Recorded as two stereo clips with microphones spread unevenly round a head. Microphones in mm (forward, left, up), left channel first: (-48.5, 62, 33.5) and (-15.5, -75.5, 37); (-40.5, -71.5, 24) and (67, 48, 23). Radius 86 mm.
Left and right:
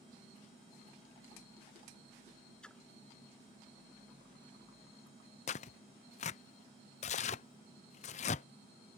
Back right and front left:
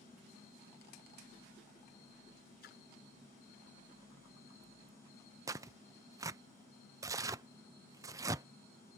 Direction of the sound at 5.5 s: 110° left.